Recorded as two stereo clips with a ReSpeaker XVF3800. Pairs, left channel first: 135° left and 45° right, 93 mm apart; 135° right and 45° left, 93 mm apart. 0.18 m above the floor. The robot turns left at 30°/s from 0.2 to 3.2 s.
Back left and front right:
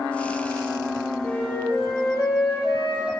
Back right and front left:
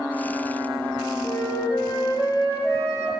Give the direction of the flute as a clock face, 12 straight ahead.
5 o'clock.